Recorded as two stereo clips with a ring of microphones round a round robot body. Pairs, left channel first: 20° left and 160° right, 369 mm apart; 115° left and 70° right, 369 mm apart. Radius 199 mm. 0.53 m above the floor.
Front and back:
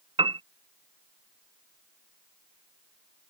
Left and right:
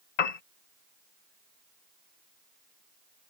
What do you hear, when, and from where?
0.2 s a piano: 125° left